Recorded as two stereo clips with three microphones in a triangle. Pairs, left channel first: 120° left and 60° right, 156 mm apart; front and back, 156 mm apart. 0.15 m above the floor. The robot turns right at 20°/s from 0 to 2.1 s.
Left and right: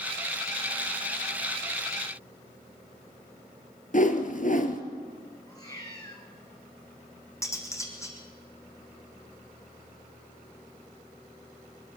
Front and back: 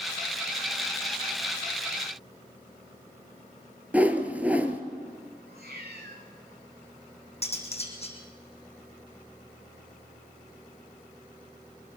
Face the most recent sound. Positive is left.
turn(degrees=50)